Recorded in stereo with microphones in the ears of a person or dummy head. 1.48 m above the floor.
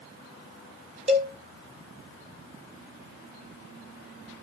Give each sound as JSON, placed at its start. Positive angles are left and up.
{"t": 1.1, "sound": "a cowbell", "side_deg": -30, "distance_m": 2.0}